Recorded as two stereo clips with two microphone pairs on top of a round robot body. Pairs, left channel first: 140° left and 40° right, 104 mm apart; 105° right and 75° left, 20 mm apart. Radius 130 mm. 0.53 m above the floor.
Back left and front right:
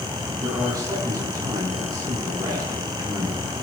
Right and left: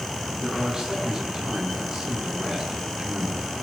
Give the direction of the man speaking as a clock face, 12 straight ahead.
11 o'clock.